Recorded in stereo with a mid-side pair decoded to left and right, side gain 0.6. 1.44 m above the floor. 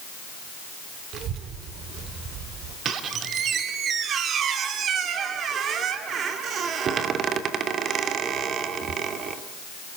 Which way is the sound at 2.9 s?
45° right.